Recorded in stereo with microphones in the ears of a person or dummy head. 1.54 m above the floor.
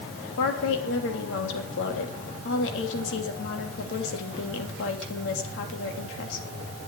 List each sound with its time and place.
0.4 s a woman speaking: 75° left (ahead or behind), 3 m